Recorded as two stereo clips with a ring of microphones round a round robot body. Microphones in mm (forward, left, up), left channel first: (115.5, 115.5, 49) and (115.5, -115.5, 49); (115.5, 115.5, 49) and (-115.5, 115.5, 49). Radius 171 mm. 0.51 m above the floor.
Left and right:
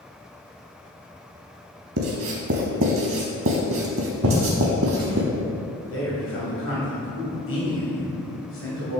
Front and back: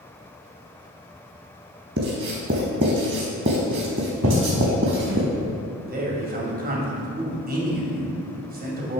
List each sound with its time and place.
2.0 s writing: 130° right, 0.5 m
4.2 s footsteps: 140° right, 2.5 m
5.9 s a man speaking: 130° left, 2.5 m